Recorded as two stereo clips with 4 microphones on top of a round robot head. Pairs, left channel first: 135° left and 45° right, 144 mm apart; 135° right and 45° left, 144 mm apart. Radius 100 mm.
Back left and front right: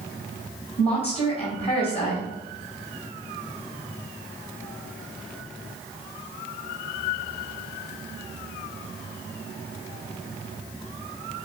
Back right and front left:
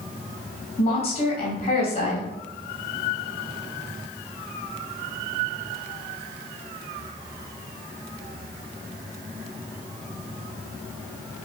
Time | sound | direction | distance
0.8 | a woman speaking | straight behind | 3.5 m